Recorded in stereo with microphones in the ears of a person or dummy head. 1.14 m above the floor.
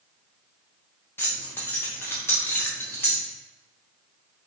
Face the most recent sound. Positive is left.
turn(degrees=10)  # may be behind; listen again after turning